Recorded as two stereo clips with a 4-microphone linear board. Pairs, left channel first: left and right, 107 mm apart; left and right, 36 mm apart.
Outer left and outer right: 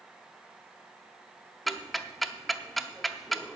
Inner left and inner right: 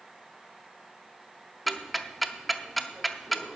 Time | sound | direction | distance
1.7 | ticking | centre (ahead or behind) | 0.6 m